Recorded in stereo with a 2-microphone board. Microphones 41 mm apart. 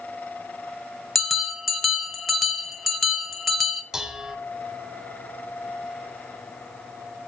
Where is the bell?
Centre (ahead or behind), 1.3 m.